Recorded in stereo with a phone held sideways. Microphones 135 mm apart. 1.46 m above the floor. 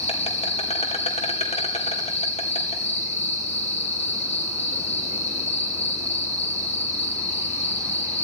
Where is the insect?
55° left (ahead or behind), 2.5 m.